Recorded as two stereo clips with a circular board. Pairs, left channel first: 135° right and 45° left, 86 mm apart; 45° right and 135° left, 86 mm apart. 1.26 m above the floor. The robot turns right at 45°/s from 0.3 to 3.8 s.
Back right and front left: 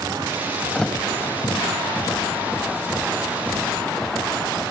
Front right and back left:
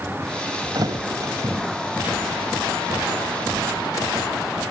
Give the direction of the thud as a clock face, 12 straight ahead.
7 o'clock.